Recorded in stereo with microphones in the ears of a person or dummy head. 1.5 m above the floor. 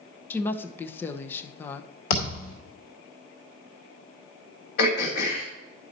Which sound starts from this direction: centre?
A woman speaking, at 0.3 s.